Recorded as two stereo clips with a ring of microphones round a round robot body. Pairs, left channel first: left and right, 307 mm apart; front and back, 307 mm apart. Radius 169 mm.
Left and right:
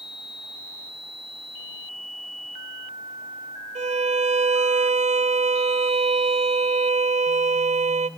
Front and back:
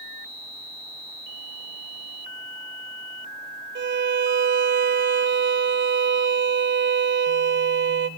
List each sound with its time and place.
3.8 s a violin: 150° right, 0.7 m